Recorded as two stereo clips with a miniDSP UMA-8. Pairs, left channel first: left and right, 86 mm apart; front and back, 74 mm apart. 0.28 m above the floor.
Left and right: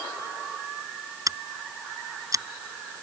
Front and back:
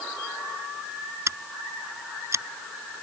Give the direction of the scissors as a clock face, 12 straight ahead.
4 o'clock.